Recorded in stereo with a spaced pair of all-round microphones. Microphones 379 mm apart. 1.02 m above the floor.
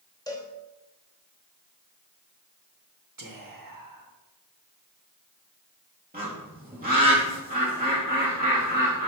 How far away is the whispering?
About 1.3 m.